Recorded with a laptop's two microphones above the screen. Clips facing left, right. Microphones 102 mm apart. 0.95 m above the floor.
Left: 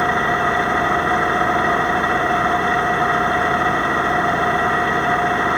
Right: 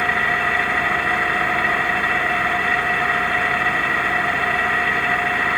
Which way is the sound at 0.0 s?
25° left (ahead or behind).